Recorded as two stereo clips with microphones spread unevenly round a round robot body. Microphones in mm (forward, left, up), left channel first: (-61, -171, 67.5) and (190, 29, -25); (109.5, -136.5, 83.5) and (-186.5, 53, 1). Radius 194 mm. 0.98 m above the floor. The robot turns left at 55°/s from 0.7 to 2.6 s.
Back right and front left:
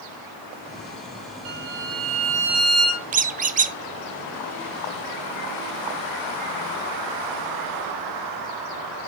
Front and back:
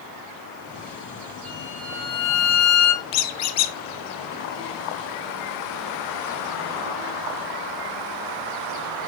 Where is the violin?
50° left, 2 m; by 3.1 s 15° right, 2 m.